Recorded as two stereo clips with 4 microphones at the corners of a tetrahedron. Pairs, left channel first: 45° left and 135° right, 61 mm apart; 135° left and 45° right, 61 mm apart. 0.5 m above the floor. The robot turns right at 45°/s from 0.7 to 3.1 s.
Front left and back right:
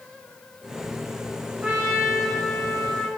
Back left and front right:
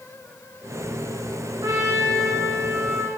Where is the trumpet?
70° right, 1.9 m; by 3.1 s straight ahead, 1.9 m.